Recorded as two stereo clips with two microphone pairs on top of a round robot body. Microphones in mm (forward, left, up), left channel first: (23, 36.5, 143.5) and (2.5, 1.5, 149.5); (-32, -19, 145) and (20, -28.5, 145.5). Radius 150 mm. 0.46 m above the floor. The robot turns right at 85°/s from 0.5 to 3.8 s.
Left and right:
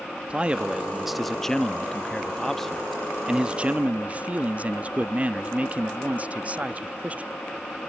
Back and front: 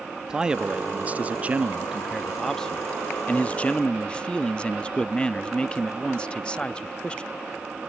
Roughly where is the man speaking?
Ahead right.